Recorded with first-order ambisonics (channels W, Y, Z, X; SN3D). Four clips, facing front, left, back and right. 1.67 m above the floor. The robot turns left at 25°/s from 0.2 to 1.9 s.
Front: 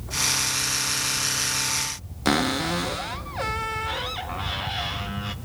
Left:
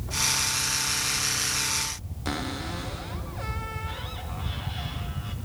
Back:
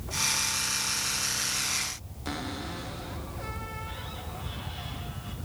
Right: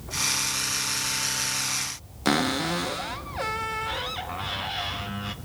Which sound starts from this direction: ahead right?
A cupboard door, at 2.2 s.